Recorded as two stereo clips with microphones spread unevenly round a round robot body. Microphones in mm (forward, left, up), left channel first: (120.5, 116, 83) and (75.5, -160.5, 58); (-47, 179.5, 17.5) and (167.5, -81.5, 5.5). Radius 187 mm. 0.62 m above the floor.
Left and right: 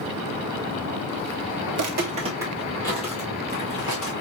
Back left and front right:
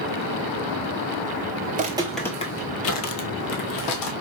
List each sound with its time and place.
1.7 s footsteps: 90° right, 0.7 m; by 4.1 s 135° left, 1.4 m